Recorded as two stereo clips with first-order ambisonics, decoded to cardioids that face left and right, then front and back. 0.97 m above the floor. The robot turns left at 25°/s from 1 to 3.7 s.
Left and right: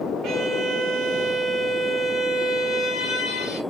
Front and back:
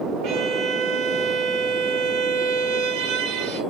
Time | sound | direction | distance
0.2 | a violin | 140° right | 0.8 m